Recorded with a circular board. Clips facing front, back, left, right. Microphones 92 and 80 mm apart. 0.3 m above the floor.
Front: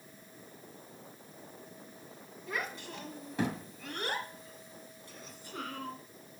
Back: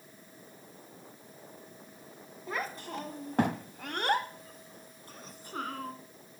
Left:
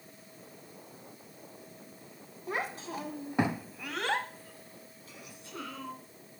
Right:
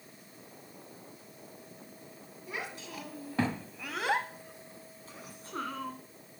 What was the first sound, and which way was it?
A child speaking, 125° left.